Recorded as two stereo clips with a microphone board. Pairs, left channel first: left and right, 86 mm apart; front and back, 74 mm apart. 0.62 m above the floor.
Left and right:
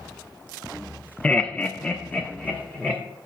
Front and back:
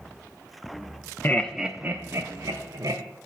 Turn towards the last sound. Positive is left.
turn(degrees=170)